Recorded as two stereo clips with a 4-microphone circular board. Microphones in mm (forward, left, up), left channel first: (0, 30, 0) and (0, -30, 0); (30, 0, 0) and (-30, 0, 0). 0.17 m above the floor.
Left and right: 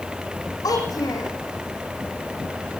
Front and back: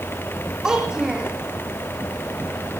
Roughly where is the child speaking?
Left.